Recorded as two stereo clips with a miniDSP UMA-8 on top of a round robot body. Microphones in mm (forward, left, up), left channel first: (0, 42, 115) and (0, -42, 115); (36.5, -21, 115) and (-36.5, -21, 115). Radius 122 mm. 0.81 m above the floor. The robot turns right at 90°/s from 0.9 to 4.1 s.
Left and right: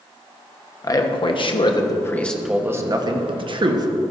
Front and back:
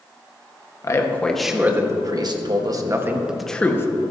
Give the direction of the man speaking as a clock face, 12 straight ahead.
11 o'clock.